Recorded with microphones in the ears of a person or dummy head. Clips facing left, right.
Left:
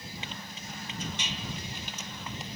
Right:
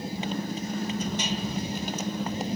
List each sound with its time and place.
0.0 s a motorcycle: 40° right (ahead or behind)